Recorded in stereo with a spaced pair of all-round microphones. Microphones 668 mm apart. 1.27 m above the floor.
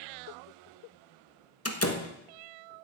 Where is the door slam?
20° left (ahead or behind), 1.3 m.